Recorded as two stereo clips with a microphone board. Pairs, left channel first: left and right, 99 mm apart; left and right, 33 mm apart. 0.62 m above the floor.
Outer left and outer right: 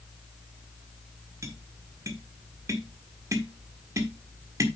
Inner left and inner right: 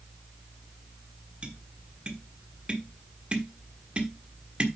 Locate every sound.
1.4 s tapping: 30° right (ahead or behind), 1.4 m